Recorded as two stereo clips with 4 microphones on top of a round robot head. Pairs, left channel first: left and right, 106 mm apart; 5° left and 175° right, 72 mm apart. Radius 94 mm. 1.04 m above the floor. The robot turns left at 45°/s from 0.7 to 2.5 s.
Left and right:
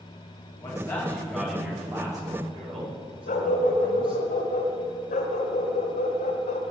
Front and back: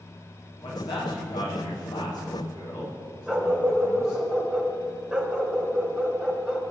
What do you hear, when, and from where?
0.6 s a man speaking: 30° left, 7.5 m; by 4.2 s 50° right, 7.5 m
3.3 s a dog barking: 105° left, 2 m